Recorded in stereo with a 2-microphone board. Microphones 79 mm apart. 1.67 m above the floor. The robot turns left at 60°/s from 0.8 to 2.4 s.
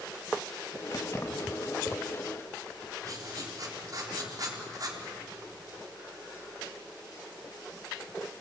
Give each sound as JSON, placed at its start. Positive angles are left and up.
{"t": 0.9, "sound": "keys jangling", "side_deg": 50, "distance_m": 1.9}
{"t": 3.0, "sound": "writing", "side_deg": -45, "distance_m": 3.5}